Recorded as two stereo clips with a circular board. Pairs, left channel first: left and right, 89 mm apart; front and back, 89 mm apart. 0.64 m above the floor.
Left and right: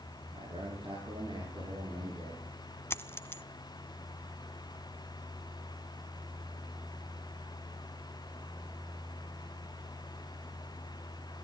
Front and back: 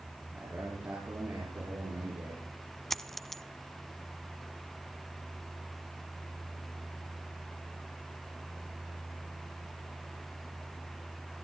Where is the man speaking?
110° right, 8.5 m; by 2.5 s 130° right, 9.5 m.